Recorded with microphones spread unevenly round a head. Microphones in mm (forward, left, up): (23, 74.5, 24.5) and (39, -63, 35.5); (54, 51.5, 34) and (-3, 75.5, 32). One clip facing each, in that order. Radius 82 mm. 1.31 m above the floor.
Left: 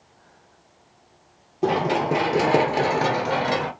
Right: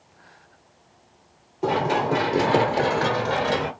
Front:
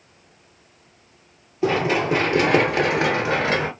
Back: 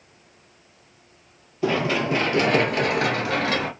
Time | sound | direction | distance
1.6 | running footsteps | 40° left | 2 m